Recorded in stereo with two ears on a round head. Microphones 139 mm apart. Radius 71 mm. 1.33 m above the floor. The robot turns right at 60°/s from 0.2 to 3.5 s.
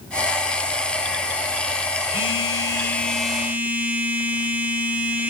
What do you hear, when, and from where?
2.1 s a phone buzzing: 110° left, 1.1 m; by 5.3 s 165° right, 1.1 m